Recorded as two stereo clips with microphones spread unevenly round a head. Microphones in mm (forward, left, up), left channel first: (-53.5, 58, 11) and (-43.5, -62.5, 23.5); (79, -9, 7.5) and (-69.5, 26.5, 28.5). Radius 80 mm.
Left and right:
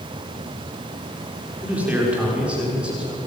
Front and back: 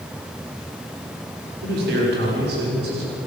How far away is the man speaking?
About 5.5 m.